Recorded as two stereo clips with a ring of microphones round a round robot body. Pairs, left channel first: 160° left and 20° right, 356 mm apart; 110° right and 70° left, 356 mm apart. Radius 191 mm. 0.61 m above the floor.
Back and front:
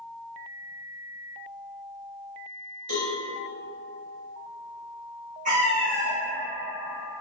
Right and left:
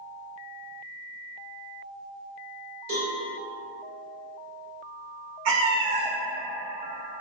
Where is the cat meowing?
50° left, 0.6 m.